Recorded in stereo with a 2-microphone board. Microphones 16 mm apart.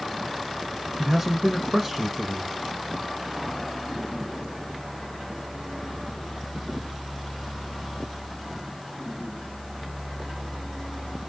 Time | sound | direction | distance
1.0 | a man speaking | 15° right (ahead or behind) | 1.1 m